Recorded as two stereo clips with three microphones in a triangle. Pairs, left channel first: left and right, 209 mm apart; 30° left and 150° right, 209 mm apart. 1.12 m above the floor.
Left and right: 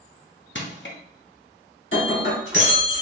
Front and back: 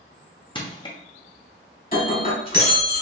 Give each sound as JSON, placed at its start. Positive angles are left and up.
{"t": 0.6, "sound": "crushing", "azimuth_deg": 90, "distance_m": 0.7}
{"t": 1.9, "sound": "breaking glass", "azimuth_deg": 70, "distance_m": 1.6}